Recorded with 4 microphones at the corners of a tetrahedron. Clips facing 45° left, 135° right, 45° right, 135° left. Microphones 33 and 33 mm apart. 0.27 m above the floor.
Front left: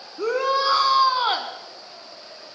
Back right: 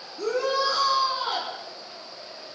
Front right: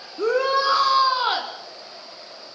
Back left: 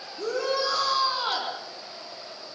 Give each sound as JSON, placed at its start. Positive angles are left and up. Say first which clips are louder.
{"t": 0.2, "sound": "a shout", "louder": "front left 3 dB, front right 7 dB", "azimuth_deg": -10, "distance_m": 2.5}